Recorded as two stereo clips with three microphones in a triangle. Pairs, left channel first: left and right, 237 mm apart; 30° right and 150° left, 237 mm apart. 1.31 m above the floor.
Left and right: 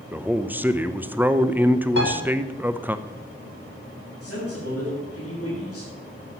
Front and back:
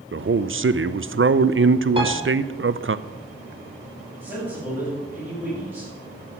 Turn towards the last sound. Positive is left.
turn(degrees=65)